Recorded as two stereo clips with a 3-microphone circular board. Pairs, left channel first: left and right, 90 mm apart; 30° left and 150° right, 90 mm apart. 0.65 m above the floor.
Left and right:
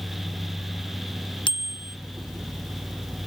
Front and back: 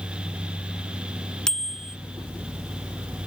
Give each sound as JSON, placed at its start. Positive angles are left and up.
{"t": 1.5, "sound": "a bicycle bell", "azimuth_deg": 115}